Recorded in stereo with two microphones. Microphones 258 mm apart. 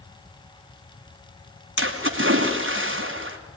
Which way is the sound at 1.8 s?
50° right (ahead or behind).